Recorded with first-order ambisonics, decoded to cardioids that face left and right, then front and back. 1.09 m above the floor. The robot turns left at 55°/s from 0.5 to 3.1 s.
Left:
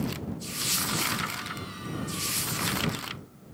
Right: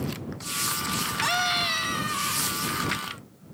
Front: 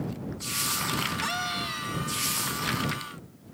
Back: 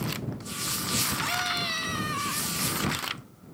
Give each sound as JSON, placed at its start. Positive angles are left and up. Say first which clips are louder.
{"t": 1.2, "sound": "a scream", "louder": "right 11 dB, back 2 dB", "azimuth_deg": -80}